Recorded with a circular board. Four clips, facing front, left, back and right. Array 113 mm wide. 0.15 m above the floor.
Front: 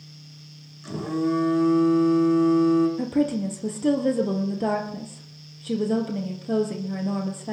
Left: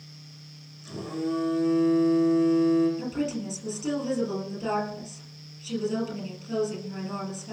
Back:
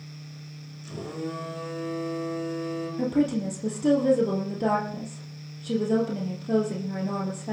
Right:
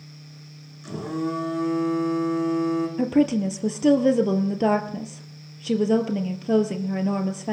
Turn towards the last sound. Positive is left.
turn(degrees=-85)